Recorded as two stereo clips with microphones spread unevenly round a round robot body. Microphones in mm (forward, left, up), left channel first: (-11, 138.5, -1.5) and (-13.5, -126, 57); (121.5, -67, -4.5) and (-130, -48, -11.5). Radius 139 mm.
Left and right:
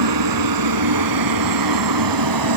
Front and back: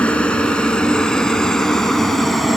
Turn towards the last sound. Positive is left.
turn(degrees=-95)